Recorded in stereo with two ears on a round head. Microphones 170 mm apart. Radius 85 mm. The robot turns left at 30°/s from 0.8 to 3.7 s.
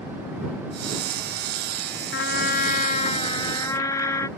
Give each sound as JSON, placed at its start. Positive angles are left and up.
{"t": 2.1, "sound": "a trumpet", "azimuth_deg": 65}